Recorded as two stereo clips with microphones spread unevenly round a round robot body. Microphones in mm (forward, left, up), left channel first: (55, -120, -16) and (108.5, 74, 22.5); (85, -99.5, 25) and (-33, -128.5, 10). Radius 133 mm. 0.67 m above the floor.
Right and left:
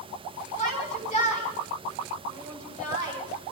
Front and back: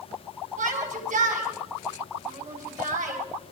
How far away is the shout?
About 4 m.